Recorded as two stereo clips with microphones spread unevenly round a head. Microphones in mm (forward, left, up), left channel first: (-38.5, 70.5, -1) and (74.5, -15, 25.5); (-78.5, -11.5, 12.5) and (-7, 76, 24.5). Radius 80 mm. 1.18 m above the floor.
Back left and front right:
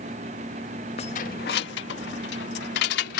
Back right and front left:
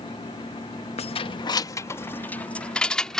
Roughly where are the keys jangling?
Behind right.